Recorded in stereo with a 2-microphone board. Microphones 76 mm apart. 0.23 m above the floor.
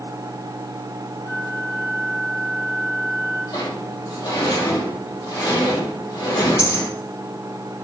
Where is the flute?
55° left (ahead or behind), 4 m.